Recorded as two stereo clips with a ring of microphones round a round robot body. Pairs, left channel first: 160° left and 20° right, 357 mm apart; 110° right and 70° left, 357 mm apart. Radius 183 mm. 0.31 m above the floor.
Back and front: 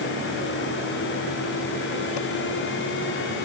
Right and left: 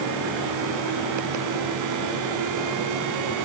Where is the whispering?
I don't hear whispering.